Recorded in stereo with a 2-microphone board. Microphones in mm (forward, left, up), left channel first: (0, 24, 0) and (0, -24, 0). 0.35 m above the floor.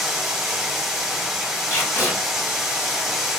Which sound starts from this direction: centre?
Running water, at 0.0 s.